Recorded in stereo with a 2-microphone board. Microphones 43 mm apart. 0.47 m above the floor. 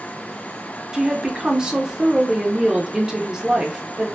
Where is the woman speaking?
20° right (ahead or behind), 0.8 m.